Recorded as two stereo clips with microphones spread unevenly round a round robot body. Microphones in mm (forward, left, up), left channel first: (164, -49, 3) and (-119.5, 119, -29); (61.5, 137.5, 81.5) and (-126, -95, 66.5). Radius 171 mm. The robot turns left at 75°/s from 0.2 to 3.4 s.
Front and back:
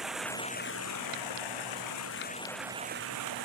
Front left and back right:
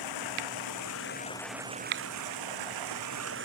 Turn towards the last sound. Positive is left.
turn(degrees=180)